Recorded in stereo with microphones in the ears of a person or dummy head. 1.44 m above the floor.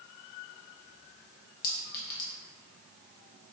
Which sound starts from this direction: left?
A clink, at 1.6 s.